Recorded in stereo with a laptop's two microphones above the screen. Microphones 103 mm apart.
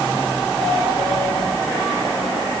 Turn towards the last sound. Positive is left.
No sound to turn to.